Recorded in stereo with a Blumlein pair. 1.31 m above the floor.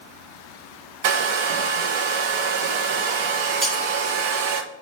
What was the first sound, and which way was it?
A hair dryer, 50° right.